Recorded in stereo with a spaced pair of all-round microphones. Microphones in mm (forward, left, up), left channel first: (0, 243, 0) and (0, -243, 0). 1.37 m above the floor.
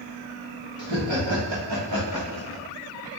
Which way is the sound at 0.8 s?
80° right.